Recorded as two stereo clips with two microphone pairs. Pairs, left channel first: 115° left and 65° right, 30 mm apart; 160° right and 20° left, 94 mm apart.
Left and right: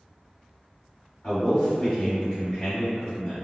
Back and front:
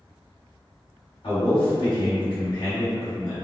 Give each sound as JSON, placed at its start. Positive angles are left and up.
{"t": 1.2, "sound": "a man speaking", "azimuth_deg": 180, "distance_m": 1.9}